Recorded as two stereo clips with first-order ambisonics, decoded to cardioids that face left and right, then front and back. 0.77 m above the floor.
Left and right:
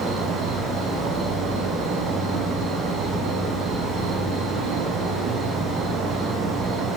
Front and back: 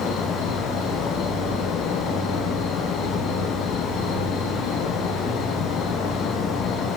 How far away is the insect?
About 7.5 m.